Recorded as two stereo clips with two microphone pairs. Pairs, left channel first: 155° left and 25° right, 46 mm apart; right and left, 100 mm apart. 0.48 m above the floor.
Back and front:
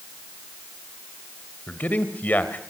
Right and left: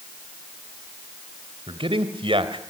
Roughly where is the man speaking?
Left.